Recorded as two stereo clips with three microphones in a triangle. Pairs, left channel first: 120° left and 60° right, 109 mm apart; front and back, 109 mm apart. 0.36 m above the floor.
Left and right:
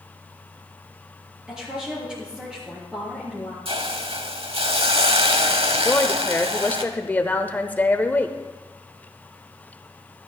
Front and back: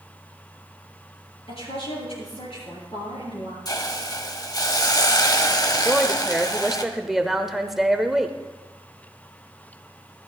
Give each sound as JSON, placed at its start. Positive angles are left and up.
{"t": 1.5, "sound": "a woman speaking", "azimuth_deg": 20, "distance_m": 6.5}
{"t": 3.6, "sound": "a hiss", "azimuth_deg": -50, "distance_m": 1.0}
{"t": 5.8, "sound": "a woman speaking", "azimuth_deg": 100, "distance_m": 0.9}